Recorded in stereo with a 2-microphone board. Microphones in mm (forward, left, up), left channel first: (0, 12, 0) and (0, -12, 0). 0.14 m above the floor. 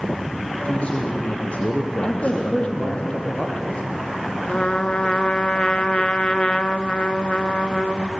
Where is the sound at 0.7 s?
60° left (ahead or behind), 4.5 m; by 3.0 s 55° left (ahead or behind), 2.5 m.